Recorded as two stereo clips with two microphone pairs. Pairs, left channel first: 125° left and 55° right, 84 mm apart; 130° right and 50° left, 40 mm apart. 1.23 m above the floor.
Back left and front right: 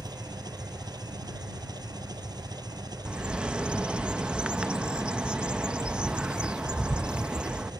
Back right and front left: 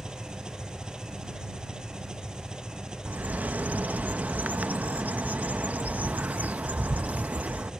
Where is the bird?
20° left.